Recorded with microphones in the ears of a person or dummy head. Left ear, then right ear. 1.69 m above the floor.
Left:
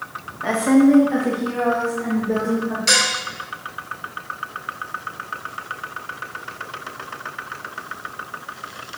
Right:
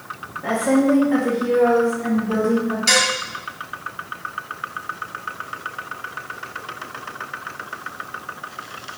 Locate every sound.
0.4 s a woman speaking: 35° left (ahead or behind), 1.2 m; by 2.8 s 25° right (ahead or behind), 3.5 m
2.9 s dishes clattering: centre (ahead or behind), 1.2 m